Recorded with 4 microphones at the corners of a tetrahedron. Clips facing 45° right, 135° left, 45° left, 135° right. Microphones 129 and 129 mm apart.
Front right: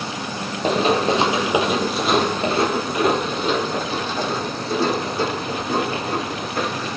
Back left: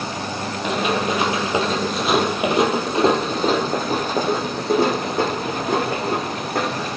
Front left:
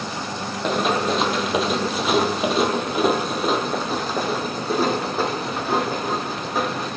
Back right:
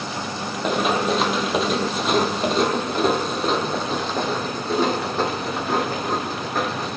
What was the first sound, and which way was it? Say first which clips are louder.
Running footsteps: front right 4 dB, even; 50° right.